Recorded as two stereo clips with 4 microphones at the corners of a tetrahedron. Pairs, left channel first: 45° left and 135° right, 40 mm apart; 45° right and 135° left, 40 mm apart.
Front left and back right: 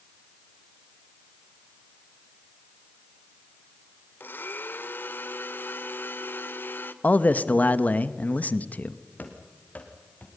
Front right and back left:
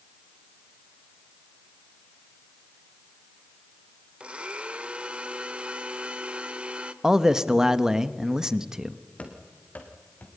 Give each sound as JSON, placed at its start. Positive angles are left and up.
{"t": 4.2, "sound": "a blender", "azimuth_deg": 75, "distance_m": 1.2}
{"t": 7.0, "sound": "a man speaking", "azimuth_deg": 70, "distance_m": 1.0}
{"t": 9.2, "sound": "running footsteps", "azimuth_deg": 5, "distance_m": 3.0}